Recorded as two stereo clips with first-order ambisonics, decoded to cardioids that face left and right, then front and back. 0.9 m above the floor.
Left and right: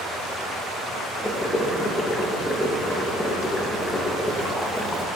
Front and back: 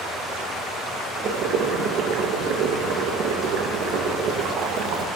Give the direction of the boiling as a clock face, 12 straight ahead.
6 o'clock.